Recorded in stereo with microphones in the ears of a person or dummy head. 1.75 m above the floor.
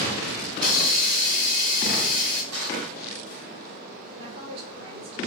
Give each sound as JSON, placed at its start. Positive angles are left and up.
{"t": 0.6, "sound": "a hiss", "side_deg": -25, "distance_m": 1.9}
{"t": 2.5, "sound": "crushing", "side_deg": -70, "distance_m": 2.0}
{"t": 4.2, "sound": "a woman speaking", "side_deg": -35, "distance_m": 5.0}